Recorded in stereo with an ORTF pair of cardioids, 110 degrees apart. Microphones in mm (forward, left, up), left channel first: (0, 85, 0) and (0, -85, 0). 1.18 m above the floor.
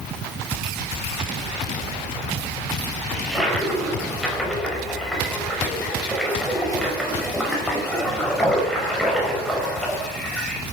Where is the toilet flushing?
Straight ahead, 5.5 m.